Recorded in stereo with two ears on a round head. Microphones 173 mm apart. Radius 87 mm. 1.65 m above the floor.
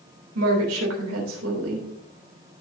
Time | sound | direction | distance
0.3 | a woman speaking | 75° right (ahead or behind) | 3 m